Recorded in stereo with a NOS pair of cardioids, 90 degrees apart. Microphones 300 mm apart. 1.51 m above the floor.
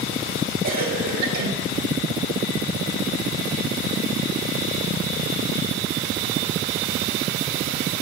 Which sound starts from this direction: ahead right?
A cough, at 0.6 s.